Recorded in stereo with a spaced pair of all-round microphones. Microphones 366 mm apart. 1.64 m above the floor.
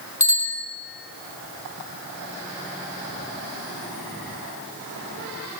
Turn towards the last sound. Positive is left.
turn(degrees=35)  # may be behind; listen again after turning